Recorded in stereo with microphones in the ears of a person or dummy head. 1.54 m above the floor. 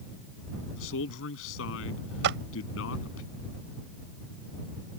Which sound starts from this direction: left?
A man speaking, at 0.8 s.